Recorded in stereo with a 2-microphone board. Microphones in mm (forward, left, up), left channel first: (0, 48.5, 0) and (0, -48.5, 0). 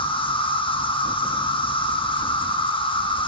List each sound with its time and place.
0.0 s an insect: 60° left (ahead or behind), 1.0 m